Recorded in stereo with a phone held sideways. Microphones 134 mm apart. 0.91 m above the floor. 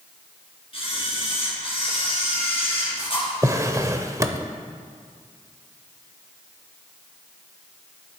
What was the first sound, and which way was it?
A camera shutter, 45° left (ahead or behind).